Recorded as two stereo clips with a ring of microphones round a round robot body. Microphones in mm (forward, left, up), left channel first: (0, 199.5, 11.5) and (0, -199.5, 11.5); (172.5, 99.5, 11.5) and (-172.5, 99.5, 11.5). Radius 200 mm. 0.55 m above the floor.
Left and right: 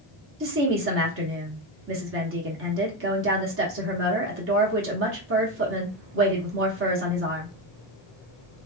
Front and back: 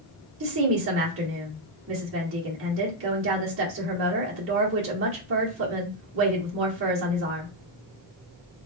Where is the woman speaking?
140° right, 1.1 m.